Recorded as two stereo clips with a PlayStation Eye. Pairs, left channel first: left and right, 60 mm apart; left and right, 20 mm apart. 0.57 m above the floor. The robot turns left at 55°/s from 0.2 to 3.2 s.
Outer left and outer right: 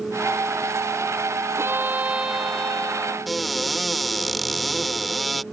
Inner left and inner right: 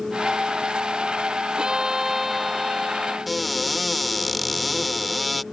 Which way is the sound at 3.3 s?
Centre (ahead or behind).